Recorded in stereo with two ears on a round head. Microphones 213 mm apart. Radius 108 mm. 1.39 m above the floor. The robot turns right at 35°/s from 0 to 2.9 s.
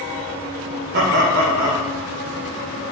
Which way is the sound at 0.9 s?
135° right.